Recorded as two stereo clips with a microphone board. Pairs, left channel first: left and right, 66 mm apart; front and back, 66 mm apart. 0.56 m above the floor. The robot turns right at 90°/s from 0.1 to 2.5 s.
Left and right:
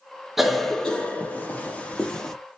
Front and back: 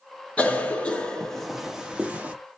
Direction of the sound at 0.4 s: 15° right.